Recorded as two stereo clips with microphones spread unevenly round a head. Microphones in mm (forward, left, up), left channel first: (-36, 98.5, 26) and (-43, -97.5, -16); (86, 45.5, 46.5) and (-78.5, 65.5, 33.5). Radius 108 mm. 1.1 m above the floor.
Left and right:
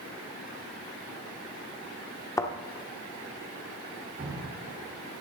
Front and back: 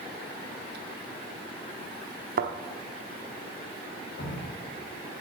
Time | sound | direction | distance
2.4 | a thud | 150° left | 1.0 m
4.2 | dripping | 45° right | 1.9 m